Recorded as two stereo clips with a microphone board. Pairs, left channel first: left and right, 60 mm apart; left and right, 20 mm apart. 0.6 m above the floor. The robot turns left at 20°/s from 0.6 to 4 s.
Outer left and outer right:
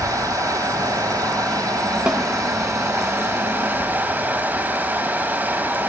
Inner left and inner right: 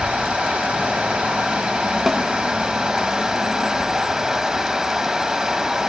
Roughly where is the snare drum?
Centre.